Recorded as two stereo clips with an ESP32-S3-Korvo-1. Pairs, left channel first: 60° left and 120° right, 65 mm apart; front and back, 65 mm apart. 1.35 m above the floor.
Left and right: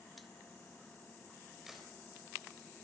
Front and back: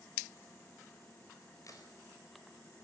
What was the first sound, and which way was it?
A crack, 35° right.